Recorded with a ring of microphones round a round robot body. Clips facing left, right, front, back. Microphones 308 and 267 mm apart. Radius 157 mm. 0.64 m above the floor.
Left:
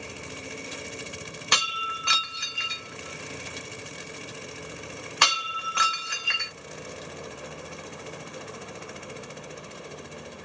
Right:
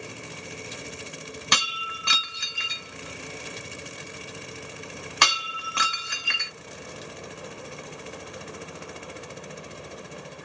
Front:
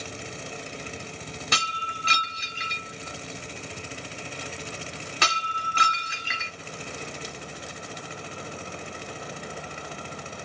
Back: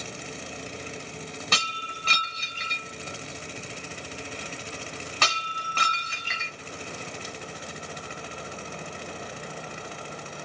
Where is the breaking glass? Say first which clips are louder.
Even, even; 80° right, 1.5 m.